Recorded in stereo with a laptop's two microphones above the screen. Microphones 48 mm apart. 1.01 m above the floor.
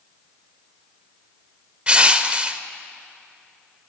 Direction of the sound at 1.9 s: 25° right (ahead or behind).